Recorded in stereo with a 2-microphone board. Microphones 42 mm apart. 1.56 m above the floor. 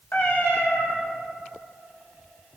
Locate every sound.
0.1 s a cat meowing: 70° left (ahead or behind), 5.5 m